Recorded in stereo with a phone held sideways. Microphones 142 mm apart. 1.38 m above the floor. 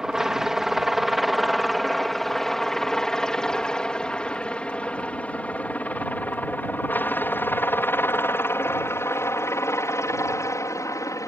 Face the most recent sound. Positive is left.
turn(degrees=20)  # may be behind; listen again after turning